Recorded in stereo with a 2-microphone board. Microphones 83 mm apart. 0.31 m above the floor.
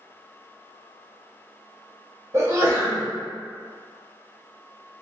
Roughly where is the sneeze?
Right.